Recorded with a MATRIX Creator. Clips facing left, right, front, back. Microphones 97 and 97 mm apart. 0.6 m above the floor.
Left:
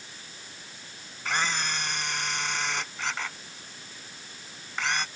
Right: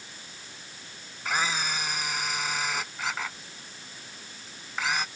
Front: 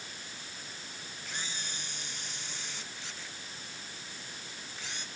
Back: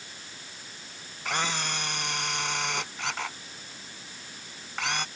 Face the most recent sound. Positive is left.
turn(degrees=-175)